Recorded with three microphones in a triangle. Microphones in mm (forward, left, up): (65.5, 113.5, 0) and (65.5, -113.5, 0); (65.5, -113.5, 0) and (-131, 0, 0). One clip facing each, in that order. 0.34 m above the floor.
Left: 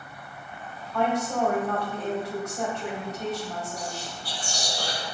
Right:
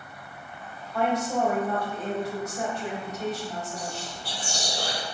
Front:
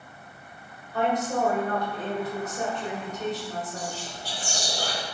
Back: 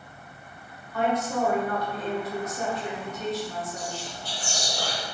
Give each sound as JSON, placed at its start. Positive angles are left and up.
{"t": 0.9, "sound": "a woman speaking", "azimuth_deg": -30, "distance_m": 1.5}
{"t": 3.8, "sound": "whispering", "azimuth_deg": -95, "distance_m": 0.9}